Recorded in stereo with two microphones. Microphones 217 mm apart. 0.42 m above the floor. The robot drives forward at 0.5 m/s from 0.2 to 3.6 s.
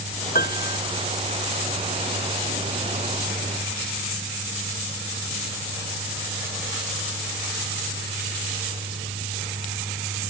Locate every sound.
0.3 s a piano: 45° left (ahead or behind)